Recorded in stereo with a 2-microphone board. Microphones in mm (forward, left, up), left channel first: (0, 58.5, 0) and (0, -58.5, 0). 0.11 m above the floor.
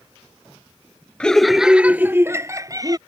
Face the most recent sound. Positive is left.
turn(degrees=-35)  # may be behind; listen again after turning